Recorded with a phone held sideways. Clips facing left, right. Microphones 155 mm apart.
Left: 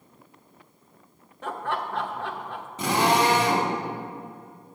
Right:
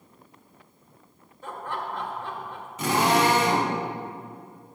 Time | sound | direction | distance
1.4 | laughter | 75° left (ahead or behind) | 0.7 m
2.8 | a drill | 30° left (ahead or behind) | 1.9 m